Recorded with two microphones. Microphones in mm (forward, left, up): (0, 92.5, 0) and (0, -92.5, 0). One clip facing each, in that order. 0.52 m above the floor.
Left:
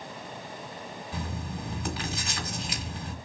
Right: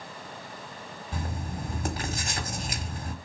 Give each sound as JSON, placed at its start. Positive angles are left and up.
{"t": 1.1, "sound": "writing", "side_deg": -45, "distance_m": 1.5}